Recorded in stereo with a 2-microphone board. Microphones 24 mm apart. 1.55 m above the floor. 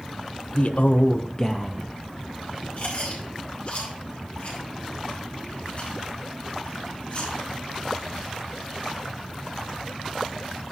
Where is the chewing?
60° left (ahead or behind), 4 m.